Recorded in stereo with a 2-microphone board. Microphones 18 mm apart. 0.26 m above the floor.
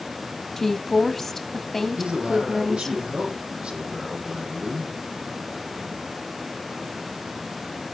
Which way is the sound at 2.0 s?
75° right (ahead or behind).